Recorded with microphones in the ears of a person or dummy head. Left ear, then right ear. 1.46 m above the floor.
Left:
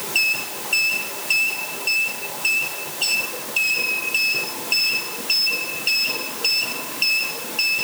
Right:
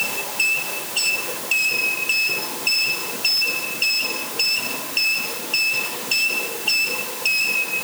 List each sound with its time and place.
Only background noise.